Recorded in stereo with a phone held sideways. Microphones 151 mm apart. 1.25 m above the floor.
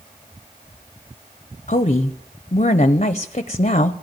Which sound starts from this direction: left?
A woman speaking, at 1.7 s.